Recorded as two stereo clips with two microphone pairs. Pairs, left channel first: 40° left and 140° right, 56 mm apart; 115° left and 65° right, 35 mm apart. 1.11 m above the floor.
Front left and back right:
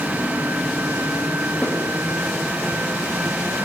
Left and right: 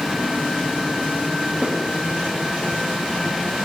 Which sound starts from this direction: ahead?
A snare drum, at 1.6 s.